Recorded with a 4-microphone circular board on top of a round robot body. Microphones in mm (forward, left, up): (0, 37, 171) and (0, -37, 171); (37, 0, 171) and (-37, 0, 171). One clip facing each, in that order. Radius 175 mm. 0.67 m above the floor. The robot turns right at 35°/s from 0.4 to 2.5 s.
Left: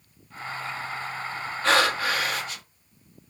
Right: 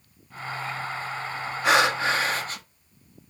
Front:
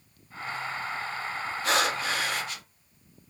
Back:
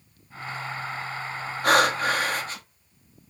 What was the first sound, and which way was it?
Breathing, 165° right.